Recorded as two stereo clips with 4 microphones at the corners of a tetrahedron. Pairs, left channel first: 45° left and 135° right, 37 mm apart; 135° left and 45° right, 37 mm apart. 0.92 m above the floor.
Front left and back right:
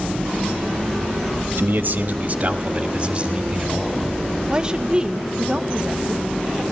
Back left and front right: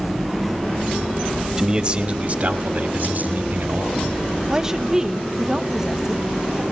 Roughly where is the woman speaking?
Right.